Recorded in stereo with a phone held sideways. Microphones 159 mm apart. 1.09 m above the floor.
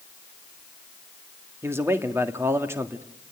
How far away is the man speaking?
About 1.7 m.